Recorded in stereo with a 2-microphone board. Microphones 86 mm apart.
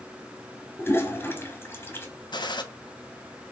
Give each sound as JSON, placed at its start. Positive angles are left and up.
{"t": 0.8, "sound": "a toilet flushing", "side_deg": 25, "distance_m": 1.2}
{"t": 2.3, "sound": "a gunshot", "side_deg": 60, "distance_m": 0.7}